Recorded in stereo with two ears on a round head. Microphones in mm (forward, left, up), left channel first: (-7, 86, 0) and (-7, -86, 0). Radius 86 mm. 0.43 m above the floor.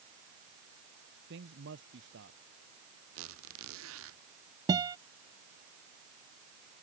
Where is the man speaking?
70° right (ahead or behind).